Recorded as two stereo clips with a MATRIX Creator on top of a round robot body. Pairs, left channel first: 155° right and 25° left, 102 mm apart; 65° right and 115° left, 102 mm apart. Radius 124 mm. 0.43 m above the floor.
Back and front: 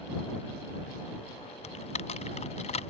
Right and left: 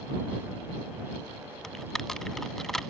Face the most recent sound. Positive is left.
turn(degrees=-155)